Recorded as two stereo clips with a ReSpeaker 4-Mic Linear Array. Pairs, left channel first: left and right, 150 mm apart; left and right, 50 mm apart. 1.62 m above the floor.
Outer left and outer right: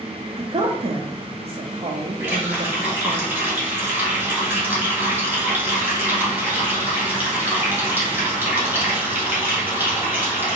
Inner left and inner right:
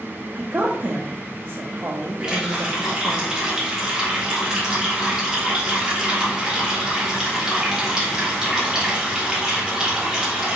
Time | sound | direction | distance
0.3 | a woman speaking | 50° right (ahead or behind) | 0.5 m
2.2 | a running tap | 15° right (ahead or behind) | 1.6 m